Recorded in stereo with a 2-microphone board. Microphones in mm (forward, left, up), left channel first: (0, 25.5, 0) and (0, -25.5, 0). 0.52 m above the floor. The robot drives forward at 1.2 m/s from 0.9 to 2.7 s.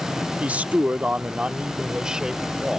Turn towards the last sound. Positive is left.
turn(degrees=-10)  # may be behind; listen again after turning